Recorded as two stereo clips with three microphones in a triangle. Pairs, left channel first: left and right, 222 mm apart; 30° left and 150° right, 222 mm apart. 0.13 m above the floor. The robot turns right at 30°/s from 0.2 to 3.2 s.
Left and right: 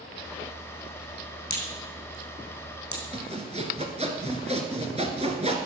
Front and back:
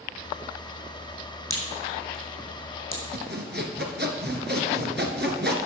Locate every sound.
1.5 s a crack: 50° left, 4 m; by 3.0 s 95° left, 4 m
3.1 s sawing: 145° right, 1.4 m; by 5.5 s 140° right, 1.4 m